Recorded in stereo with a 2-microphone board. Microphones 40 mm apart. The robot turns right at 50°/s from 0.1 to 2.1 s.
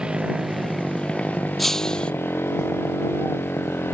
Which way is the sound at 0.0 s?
20° right.